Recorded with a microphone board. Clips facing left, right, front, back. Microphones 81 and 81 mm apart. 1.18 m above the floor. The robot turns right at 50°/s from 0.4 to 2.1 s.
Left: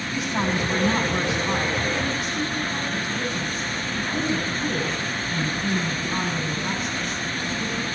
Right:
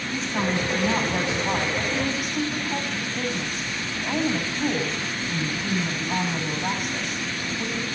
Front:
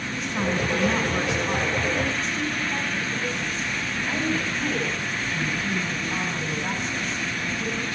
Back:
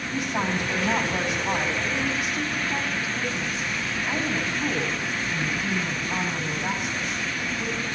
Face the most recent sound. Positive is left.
turn(degrees=-105)